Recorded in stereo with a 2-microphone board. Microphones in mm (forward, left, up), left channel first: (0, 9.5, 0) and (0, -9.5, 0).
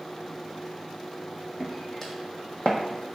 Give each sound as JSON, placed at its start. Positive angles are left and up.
{"t": 1.6, "sound": "footsteps", "side_deg": 5, "distance_m": 0.7}